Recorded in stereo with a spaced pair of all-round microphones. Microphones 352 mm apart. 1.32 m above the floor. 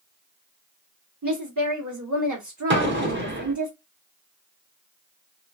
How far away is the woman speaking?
About 1.2 m.